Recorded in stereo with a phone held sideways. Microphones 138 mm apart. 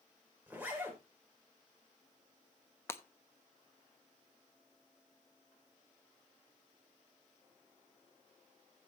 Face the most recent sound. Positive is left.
turn(degrees=20)  # may be behind; listen again after turning